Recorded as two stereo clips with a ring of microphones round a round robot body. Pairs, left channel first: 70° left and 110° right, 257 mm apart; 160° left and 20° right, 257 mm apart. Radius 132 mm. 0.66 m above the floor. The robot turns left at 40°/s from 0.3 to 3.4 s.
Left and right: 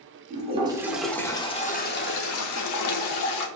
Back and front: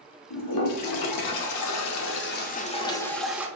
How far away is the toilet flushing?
About 0.7 m.